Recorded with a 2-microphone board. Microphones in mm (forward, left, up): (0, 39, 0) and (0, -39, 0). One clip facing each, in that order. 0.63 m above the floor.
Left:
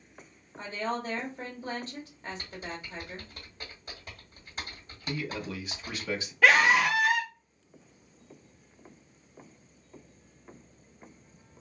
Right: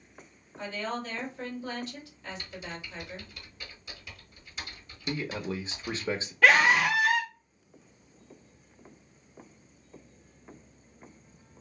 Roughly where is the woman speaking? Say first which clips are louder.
Left 1 dB; left.